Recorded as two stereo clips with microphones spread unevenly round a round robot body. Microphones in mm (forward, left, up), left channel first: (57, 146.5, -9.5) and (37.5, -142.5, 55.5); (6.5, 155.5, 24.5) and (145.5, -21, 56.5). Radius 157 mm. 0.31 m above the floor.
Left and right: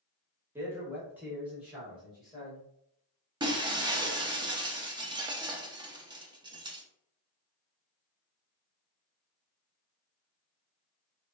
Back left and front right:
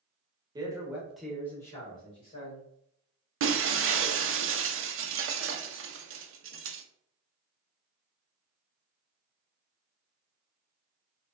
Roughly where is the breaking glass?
Ahead.